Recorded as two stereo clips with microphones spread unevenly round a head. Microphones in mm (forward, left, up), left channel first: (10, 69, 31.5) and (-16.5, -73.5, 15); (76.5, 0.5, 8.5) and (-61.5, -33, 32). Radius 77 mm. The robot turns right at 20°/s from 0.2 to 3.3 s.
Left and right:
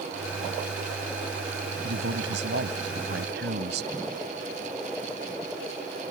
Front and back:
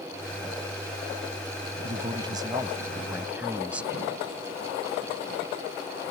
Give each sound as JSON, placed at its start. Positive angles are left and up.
{"t": 1.8, "sound": "a man speaking", "azimuth_deg": -115}